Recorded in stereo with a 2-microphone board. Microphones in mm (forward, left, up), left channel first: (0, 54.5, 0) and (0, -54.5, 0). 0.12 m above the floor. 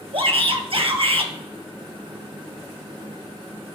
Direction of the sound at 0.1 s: 55° right (ahead or behind).